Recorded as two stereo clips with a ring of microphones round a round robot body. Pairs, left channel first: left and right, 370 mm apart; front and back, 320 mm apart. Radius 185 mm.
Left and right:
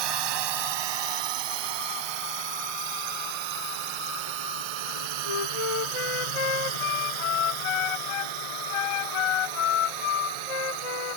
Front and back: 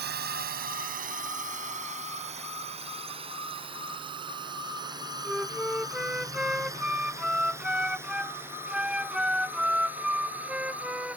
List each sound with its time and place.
0.0 s a drone: 115° right; by 11.2 s 95° right
5.2 s a flute: 95° left